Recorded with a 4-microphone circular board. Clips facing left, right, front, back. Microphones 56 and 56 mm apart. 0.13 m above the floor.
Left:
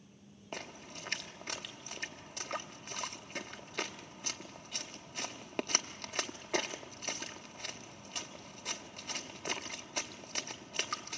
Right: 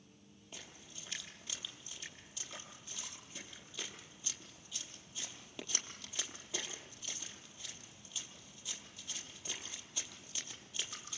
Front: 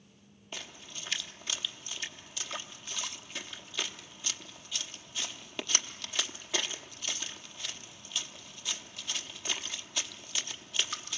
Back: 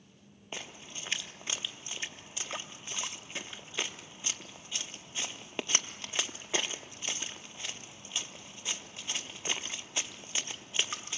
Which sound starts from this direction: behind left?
A splash, at 0.5 s.